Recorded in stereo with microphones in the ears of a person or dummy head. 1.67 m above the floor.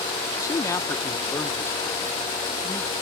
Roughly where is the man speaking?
Left.